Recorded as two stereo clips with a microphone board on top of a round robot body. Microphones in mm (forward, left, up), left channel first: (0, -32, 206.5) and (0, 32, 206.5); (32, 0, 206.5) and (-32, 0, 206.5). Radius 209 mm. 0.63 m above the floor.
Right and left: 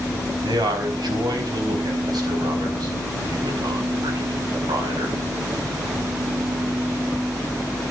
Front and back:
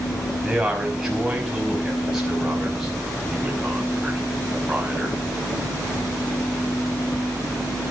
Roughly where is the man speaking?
Left.